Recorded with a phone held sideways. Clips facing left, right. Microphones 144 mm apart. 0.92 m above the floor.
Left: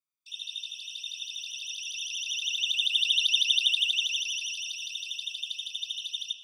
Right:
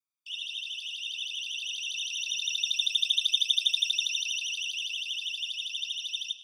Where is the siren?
15° right (ahead or behind), 4 m; by 6.3 s 5° right (ahead or behind), 3.5 m.